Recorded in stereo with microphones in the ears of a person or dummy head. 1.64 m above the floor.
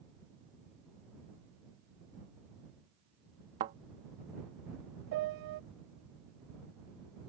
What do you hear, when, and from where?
3.6 s a thud: 20° right (ahead or behind)
5.1 s a piano: 50° right (ahead or behind)